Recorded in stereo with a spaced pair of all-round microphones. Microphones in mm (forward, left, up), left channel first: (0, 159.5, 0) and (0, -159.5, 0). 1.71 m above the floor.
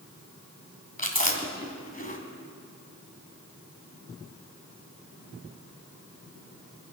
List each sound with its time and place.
1.0 s chewing: 25° left (ahead or behind), 2 m